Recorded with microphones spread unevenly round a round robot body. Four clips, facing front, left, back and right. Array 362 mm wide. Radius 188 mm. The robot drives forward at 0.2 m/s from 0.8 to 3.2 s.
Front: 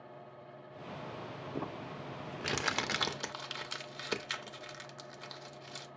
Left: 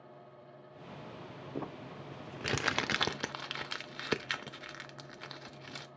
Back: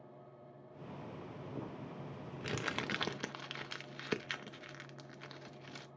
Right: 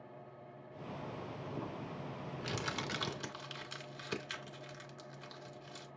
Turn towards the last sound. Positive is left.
turn(degrees=75)